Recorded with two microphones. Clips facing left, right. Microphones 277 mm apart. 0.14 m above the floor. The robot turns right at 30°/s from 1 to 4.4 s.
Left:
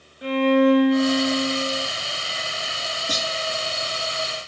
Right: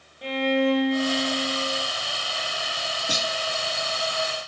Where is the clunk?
10° right (ahead or behind), 1.7 m; by 3.3 s 5° right (ahead or behind), 1.7 m.